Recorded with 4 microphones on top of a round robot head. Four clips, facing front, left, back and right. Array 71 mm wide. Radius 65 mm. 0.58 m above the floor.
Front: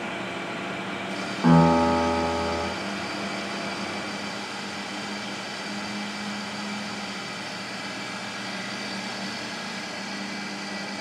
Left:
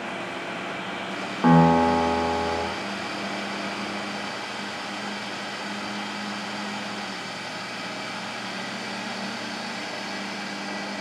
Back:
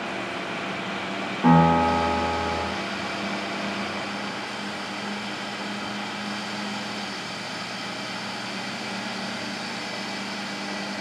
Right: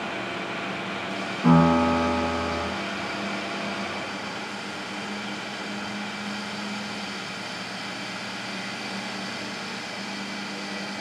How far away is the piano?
About 1.6 m.